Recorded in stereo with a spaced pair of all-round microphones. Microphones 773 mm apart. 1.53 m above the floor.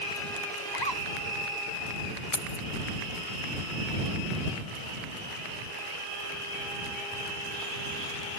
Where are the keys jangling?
80° left.